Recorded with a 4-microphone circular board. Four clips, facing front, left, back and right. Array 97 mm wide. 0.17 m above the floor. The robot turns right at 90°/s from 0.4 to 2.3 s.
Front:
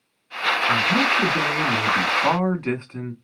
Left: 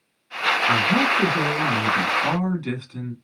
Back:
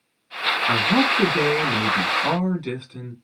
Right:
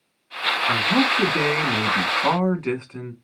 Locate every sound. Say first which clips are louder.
0.7 s a man speaking: right 1 dB, back 3 dB; straight behind, 1.6 m; by 3.1 s 35° right, 1.6 m